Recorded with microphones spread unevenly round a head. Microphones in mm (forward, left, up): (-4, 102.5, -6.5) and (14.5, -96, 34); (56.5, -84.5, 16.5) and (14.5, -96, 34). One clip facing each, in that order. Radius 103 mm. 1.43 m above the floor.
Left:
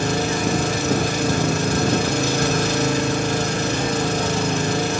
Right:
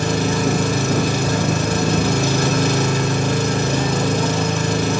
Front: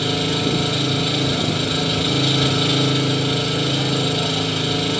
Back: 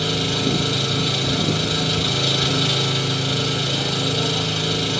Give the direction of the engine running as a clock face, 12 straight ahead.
2 o'clock.